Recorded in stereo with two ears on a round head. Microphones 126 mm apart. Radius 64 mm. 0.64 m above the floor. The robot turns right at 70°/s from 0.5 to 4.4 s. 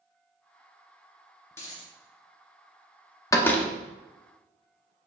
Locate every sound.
1.5 s a dropped coin: 15° left (ahead or behind), 2 m; by 1.9 s 40° left (ahead or behind), 2 m
3.3 s a door slam: 25° left (ahead or behind), 0.8 m; by 3.7 s 5° left (ahead or behind), 0.8 m